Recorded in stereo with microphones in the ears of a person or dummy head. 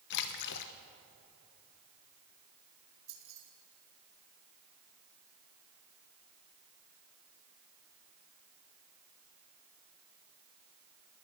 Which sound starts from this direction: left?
A splash, at 0.1 s.